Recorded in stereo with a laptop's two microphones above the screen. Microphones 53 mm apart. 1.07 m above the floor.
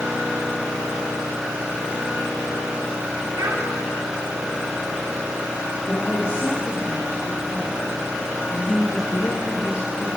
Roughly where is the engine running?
Centre.